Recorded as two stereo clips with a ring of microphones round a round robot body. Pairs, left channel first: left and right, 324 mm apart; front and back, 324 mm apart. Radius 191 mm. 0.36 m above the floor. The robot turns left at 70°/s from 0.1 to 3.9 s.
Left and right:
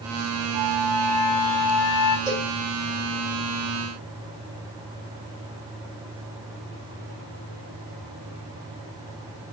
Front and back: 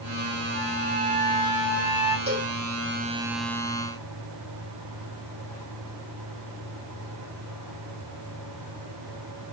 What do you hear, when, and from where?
0.5 s a flute: 165° left, 1.6 m; by 2.2 s 50° left, 1.6 m
2.3 s a cowbell: 140° right, 1.4 m; by 2.5 s 160° right, 1.4 m